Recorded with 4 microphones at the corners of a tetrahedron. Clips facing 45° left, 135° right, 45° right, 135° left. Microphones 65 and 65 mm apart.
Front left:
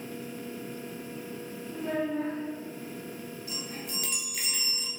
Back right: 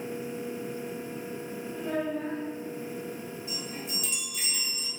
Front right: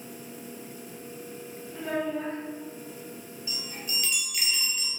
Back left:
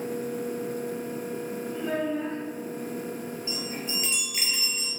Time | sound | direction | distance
1.7 | a child speaking | 45° left | 1.6 m
3.5 | a chime | 75° left | 1.0 m